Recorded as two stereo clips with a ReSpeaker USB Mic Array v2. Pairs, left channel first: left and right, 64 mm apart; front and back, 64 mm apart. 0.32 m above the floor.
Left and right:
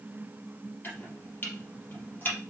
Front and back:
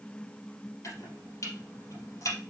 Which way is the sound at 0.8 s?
30° left.